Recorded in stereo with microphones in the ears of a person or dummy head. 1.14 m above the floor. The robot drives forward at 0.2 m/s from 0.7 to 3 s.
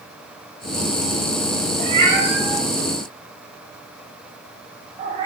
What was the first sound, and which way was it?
A cat meowing, 40° right (ahead or behind).